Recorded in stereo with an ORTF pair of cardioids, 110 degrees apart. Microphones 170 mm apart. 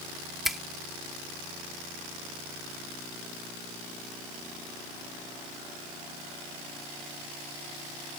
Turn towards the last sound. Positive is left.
turn(degrees=0)